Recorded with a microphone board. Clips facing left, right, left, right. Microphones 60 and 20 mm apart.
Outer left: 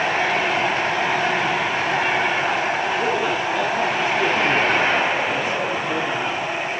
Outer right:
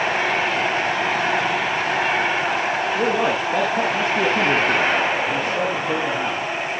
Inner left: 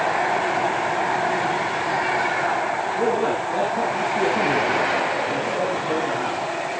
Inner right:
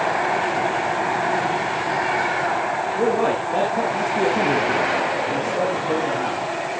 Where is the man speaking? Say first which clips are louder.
Outer right 1 dB, inner right 2 dB; 65° right (ahead or behind), 5 m.